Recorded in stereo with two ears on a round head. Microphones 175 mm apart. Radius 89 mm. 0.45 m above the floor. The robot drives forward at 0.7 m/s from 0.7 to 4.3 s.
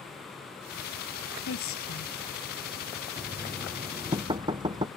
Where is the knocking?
20° right (ahead or behind).